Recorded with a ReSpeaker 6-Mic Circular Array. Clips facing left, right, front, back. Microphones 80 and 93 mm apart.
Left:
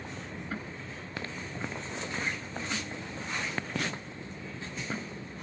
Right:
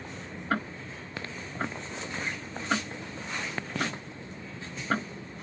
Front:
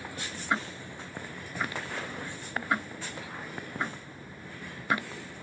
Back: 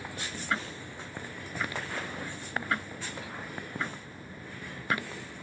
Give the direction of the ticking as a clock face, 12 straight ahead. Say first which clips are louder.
Right 12 dB, front 3 dB; 2 o'clock.